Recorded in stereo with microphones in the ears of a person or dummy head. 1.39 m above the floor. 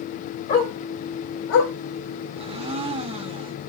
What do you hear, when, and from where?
0.5 s a dog barking: 40° left (ahead or behind), 1.5 m; by 1.7 s 70° left (ahead or behind), 1.8 m
2.4 s a blender: 30° right (ahead or behind), 0.7 m